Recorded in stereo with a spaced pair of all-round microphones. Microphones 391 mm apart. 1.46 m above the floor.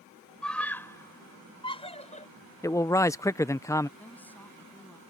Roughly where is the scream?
Centre.